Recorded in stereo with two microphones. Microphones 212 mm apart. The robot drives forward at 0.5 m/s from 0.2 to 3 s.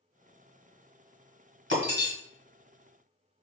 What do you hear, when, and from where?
1.7 s breaking glass: 65° right (ahead or behind), 1.3 m; by 2.1 s 60° right (ahead or behind), 1.4 m